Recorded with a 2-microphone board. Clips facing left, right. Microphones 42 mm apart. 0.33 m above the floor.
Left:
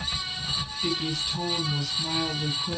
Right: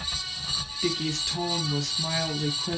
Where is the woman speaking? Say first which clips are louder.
Right 1 dB; 75° right (ahead or behind), 6.5 m.